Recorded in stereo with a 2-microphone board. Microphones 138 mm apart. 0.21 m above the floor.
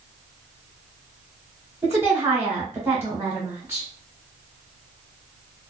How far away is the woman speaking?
About 1.2 m.